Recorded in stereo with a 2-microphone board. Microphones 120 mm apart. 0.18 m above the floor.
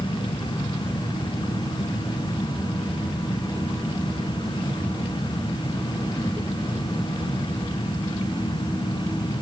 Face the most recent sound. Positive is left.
No sound to turn to.